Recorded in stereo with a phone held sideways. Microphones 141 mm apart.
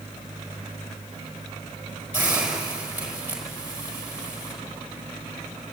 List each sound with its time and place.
2.1 s a hiss: 10° right (ahead or behind), 5 m